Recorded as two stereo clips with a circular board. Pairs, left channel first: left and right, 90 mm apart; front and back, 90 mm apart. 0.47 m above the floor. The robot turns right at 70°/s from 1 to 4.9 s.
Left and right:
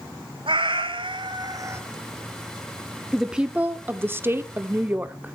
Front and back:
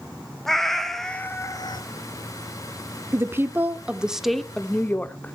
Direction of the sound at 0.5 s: 85° right.